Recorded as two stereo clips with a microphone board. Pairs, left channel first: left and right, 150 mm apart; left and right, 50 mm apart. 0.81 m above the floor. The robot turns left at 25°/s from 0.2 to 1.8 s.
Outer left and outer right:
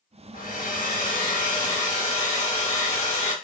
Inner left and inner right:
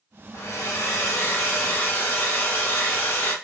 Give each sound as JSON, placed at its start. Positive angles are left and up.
{"t": 0.3, "sound": "a hair dryer", "azimuth_deg": 95, "distance_m": 1.1}